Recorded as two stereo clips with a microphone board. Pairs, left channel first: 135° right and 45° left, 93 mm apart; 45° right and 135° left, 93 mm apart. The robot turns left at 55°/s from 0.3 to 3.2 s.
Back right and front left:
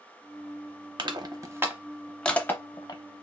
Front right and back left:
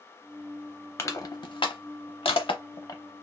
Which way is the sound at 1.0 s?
15° left.